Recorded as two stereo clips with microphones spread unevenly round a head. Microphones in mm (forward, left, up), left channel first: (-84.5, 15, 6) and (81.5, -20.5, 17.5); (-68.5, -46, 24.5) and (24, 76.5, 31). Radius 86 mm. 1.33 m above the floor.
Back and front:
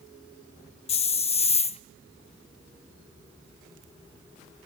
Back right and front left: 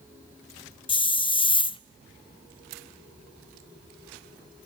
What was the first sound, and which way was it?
A hiss, 165° right.